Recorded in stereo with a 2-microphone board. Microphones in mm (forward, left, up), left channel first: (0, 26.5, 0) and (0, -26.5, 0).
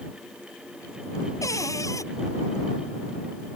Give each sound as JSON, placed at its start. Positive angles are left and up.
{"t": 1.4, "sound": "a cupboard door", "side_deg": 80}